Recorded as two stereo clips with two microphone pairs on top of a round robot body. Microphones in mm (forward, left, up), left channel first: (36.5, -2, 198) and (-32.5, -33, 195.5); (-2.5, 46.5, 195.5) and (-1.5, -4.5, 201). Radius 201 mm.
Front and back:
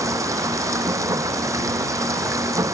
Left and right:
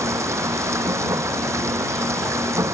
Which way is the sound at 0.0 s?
110° right.